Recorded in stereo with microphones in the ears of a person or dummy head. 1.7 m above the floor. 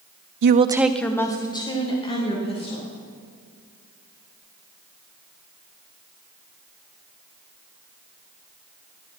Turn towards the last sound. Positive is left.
turn(degrees=35)  # may be behind; listen again after turning